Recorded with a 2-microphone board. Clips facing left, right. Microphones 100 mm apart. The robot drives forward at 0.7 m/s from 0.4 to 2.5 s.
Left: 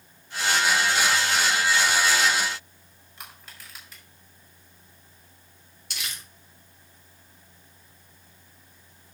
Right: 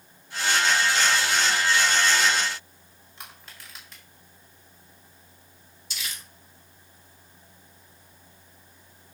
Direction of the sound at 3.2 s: Centre (ahead or behind).